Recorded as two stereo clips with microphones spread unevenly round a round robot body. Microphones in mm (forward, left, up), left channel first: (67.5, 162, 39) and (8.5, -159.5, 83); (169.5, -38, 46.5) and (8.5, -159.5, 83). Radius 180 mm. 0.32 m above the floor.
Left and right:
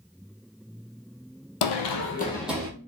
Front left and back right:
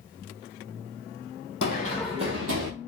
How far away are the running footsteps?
About 0.9 m.